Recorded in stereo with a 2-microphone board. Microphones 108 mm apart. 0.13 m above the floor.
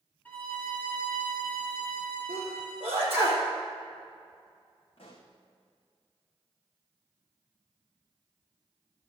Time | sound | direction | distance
0.2 | a violin | 10° left (ahead or behind) | 1.6 m
2.3 | a sneeze | 20° right (ahead or behind) | 4 m
5.0 | a pop | 55° left (ahead or behind) | 2.5 m